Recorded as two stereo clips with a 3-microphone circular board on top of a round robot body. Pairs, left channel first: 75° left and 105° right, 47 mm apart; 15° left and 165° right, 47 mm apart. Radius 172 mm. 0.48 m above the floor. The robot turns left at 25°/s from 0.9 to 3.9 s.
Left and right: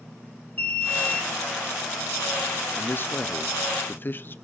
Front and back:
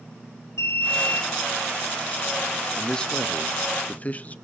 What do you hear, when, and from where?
0.6 s an alarm: 20° left, 5.5 m; by 1.3 s 10° left, 5.5 m
2.8 s a man speaking: 85° left, 0.9 m; by 4.3 s 60° left, 0.9 m